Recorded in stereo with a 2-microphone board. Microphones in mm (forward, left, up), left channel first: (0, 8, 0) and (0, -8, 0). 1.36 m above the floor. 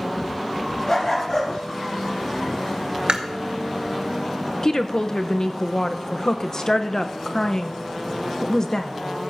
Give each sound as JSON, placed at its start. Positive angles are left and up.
{"t": 0.9, "sound": "a dog barking", "side_deg": 30, "distance_m": 4.5}
{"t": 3.1, "sound": "chewing", "side_deg": -80, "distance_m": 1.1}
{"t": 4.6, "sound": "a woman speaking", "side_deg": 40, "distance_m": 0.9}